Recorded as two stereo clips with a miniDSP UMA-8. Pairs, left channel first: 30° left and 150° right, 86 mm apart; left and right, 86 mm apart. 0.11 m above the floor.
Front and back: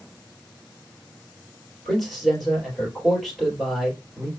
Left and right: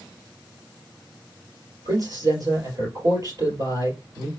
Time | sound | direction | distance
1.9 | a man speaking | 60° right | 3 m